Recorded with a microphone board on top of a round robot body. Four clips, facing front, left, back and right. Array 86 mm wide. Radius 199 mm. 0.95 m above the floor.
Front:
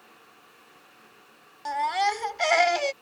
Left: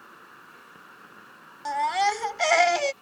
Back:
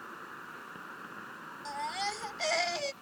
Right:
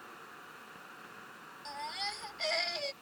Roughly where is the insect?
Behind.